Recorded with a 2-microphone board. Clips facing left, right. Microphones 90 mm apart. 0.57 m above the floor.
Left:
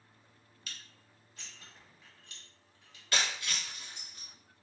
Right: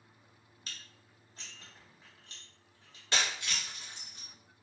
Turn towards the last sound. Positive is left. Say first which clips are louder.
# even
turn(degrees=-25)  # may be behind; listen again after turning